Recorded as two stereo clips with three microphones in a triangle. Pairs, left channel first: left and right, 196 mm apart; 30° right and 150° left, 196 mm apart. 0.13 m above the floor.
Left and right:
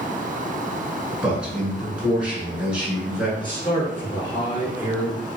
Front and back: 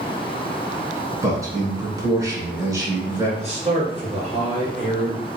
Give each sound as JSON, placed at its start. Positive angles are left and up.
{"t": 1.2, "sound": "a man speaking", "azimuth_deg": -165, "distance_m": 1.2}
{"t": 3.4, "sound": "a man speaking", "azimuth_deg": 135, "distance_m": 1.8}